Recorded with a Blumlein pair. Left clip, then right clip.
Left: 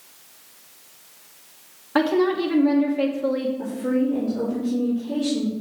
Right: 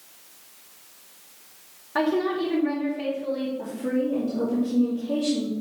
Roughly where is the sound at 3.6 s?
Ahead.